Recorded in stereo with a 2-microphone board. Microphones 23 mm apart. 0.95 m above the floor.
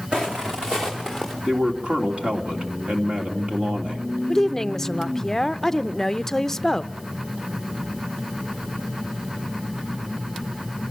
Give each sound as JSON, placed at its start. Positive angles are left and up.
{"t": 0.1, "sound": "footsteps", "side_deg": -40, "distance_m": 3.0}
{"t": 1.4, "sound": "a man speaking", "side_deg": -55, "distance_m": 3.0}
{"t": 4.3, "sound": "a woman speaking", "side_deg": 15, "distance_m": 0.5}